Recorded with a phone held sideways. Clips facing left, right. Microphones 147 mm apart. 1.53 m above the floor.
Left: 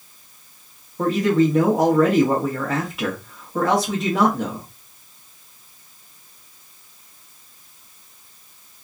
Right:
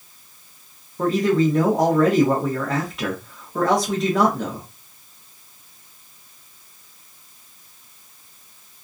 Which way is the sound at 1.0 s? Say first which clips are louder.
Left 1 dB; 5° left (ahead or behind).